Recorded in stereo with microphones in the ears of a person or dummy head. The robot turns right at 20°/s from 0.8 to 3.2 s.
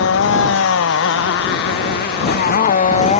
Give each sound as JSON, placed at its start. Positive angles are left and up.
{"t": 0.0, "sound": "a motorcycle", "side_deg": 70}